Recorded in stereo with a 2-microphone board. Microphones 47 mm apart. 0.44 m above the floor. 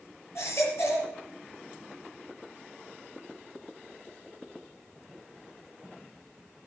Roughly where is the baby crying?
Left.